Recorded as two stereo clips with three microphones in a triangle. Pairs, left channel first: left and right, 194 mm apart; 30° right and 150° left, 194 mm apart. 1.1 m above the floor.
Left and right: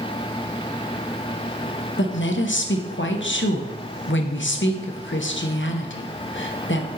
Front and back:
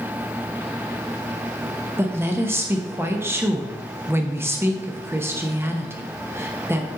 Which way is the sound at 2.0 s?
70° left.